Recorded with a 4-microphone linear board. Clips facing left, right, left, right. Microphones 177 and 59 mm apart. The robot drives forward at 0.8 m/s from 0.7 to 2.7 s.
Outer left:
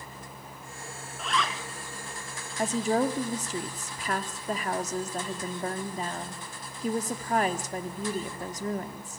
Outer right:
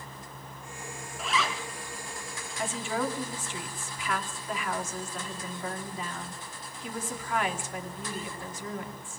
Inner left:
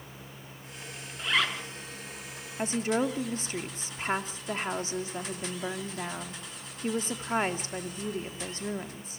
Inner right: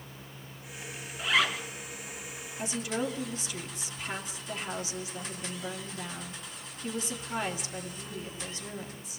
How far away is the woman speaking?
About 2.5 m.